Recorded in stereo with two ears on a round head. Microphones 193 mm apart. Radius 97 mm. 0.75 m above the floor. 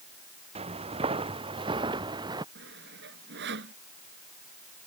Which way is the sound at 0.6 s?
30° right (ahead or behind).